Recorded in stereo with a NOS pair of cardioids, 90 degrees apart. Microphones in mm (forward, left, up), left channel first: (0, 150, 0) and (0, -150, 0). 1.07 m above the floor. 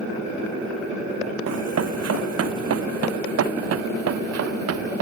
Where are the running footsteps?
60° right.